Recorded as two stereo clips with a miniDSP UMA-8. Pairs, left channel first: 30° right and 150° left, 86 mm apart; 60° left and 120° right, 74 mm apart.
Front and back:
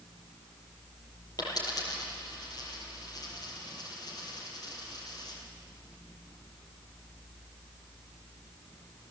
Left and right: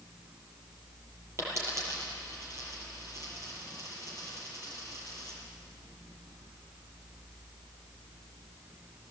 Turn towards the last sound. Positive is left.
turn(degrees=-70)